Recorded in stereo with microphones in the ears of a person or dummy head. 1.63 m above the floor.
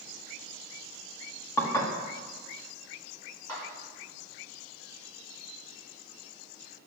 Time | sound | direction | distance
1.6 | dishes clattering | 20° left (ahead or behind) | 1.9 m
3.5 | a clap | 20° left (ahead or behind) | 5.5 m